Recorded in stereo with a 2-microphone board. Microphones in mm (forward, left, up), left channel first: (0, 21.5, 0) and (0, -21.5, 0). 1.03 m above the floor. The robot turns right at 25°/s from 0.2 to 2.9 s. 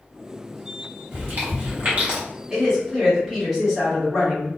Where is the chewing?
60° right (ahead or behind), 1.1 m; by 2.2 s 35° right (ahead or behind), 1.1 m.